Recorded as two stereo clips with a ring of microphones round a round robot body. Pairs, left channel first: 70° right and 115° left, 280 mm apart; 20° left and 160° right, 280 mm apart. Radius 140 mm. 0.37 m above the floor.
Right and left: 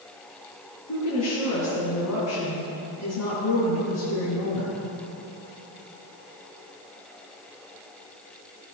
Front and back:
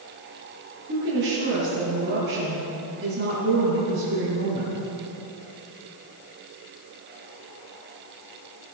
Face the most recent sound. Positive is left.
turn(degrees=-105)